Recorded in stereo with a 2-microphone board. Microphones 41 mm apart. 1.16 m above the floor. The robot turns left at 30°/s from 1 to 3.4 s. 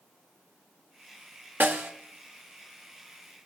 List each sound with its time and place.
1.6 s a snare drum: 50° right (ahead or behind), 1.1 m; by 1.9 s 55° right (ahead or behind), 1.1 m